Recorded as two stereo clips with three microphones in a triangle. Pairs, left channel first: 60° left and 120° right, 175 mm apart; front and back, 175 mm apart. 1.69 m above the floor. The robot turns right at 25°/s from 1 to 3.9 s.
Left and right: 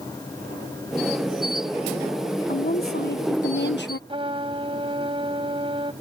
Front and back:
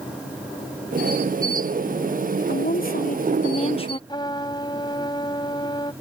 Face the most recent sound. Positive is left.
turn(degrees=-60)